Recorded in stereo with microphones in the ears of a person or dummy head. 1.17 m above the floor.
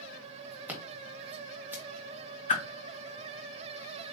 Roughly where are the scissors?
Centre.